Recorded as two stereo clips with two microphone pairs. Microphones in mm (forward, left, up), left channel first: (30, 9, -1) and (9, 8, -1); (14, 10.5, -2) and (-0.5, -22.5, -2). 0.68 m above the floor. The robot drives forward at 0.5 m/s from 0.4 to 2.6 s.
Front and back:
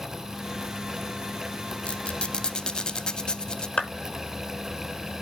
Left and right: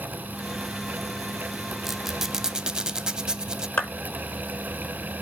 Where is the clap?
45° left, 6 m.